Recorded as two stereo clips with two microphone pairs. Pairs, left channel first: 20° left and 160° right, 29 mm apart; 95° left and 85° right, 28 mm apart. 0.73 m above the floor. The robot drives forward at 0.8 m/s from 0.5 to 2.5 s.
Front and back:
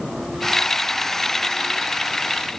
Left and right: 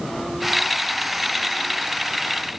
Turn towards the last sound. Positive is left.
No sound to turn to.